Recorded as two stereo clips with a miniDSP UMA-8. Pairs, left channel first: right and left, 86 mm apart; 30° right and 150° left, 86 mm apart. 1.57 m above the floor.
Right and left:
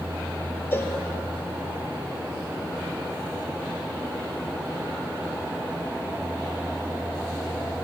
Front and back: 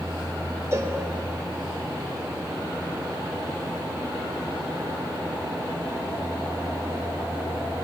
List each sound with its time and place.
0.7 s a cowbell: 155° right, 2 m